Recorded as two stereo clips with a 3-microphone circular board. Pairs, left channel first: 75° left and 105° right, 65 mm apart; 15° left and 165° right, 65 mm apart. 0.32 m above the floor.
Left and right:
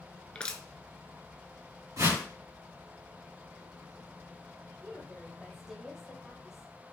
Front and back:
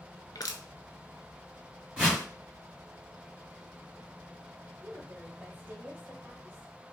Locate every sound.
0.3 s crushing: straight ahead, 0.7 m
2.0 s a whoosh: 95° right, 2.5 m
4.8 s a woman speaking: 175° right, 1.0 m